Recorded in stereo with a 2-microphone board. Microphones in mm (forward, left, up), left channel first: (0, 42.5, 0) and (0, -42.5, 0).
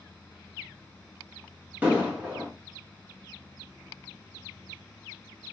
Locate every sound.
1.8 s an explosion: 20° right (ahead or behind), 1.6 m